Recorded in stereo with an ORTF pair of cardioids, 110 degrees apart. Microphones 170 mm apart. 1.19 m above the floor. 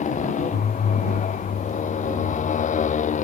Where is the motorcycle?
45° left.